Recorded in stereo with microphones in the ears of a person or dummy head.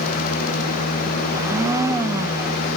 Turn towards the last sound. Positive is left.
turn(degrees=-20)  # may be behind; listen again after turning